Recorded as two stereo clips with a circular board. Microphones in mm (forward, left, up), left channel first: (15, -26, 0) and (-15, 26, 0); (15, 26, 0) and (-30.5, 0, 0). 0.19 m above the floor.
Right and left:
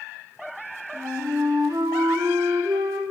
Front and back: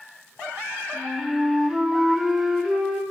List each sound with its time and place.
0.9 s a flute: 120° left, 5 m